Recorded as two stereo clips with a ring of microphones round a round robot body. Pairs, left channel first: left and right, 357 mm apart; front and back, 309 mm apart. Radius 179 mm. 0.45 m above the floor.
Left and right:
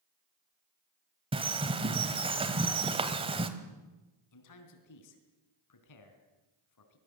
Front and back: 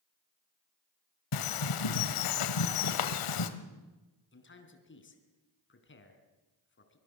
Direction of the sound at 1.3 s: 15° right.